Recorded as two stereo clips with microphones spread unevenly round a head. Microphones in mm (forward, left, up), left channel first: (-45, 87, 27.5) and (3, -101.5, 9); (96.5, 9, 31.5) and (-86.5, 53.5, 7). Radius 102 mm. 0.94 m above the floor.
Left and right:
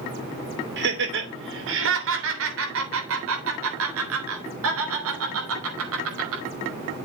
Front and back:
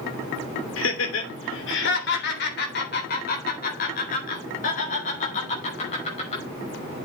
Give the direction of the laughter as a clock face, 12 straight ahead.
1 o'clock.